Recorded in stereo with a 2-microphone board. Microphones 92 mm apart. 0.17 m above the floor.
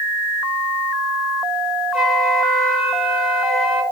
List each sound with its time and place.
1.9 s a flute: centre (ahead or behind), 2.0 m